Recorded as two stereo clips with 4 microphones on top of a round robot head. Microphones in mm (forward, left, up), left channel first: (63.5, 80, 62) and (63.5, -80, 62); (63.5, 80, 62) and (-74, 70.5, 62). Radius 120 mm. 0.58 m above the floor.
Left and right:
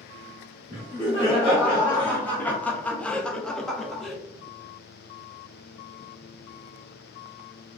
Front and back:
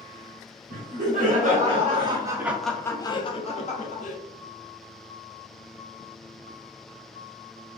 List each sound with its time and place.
0.7 s laughter: 170° left, 1.2 m; by 4.2 s straight ahead, 1.0 m